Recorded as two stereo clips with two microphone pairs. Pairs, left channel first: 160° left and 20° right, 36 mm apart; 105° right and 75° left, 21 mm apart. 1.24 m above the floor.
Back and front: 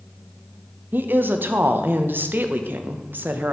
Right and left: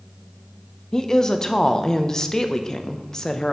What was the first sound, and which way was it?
A woman speaking, 45° right.